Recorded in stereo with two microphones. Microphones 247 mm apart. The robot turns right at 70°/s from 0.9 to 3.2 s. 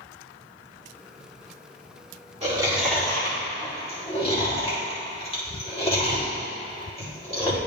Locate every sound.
2.4 s chewing: 25° right (ahead or behind), 2 m; by 7.6 s 25° left (ahead or behind), 2 m